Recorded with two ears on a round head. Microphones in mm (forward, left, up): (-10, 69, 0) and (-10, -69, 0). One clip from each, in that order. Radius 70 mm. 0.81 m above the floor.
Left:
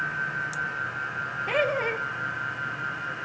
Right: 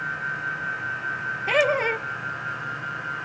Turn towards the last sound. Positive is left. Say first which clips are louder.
# right 5 dB
turn(degrees=-25)  # may be behind; listen again after turning